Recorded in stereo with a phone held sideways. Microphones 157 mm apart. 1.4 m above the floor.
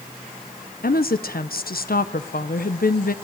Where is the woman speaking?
75° left (ahead or behind), 1.1 m.